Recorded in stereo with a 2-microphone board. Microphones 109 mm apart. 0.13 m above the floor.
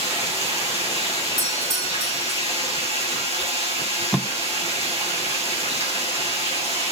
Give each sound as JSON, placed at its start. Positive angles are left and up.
{"t": 0.0, "sound": "running water", "side_deg": -70, "distance_m": 6.5}
{"t": 1.4, "sound": "a doorbell", "side_deg": -40, "distance_m": 2.0}
{"t": 3.8, "sound": "tape being pulled", "side_deg": 0, "distance_m": 0.6}